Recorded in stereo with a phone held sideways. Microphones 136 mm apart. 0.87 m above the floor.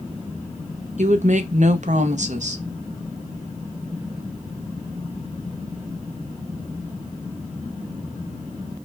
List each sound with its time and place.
1.0 s a woman speaking: 60° right (ahead or behind), 0.6 m